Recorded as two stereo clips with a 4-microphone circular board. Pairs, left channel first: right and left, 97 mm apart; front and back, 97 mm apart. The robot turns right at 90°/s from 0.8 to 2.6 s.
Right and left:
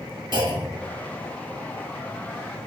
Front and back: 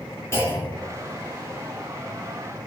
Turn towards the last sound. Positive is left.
turn(degrees=-135)